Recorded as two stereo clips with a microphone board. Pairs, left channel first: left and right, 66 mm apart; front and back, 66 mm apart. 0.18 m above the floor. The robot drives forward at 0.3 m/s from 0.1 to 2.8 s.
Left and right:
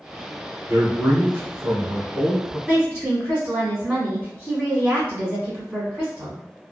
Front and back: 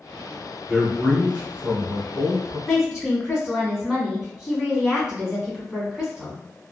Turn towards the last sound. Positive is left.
turn(degrees=-105)